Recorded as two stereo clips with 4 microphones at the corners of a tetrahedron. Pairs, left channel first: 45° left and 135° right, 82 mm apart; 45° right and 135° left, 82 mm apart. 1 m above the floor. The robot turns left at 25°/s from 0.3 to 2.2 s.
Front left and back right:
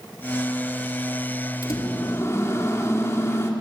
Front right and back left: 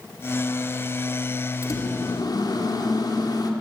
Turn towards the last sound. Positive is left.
turn(degrees=-10)